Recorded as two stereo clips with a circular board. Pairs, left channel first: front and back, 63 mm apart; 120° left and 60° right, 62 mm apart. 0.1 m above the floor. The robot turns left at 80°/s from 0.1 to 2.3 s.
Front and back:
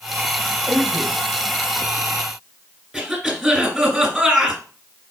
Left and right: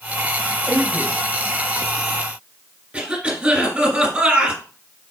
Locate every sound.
0.7 s a man speaking: 120° right, 1.8 m; by 1.2 s 160° right, 1.8 m
2.9 s a cough: 100° right, 1.9 m